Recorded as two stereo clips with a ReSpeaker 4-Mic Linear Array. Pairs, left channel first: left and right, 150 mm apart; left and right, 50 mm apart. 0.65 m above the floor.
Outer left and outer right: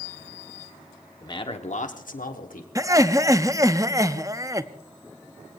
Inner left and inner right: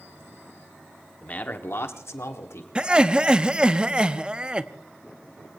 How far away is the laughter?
About 0.5 m.